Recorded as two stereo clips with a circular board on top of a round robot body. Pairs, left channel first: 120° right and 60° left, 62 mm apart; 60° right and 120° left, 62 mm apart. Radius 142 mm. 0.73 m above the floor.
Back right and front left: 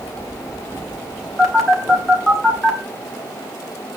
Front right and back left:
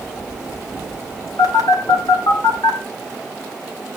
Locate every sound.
1.4 s a phone buzzing: 35° right, 3 m